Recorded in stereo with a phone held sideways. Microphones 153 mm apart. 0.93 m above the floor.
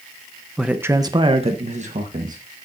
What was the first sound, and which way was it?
A man speaking, centre (ahead or behind).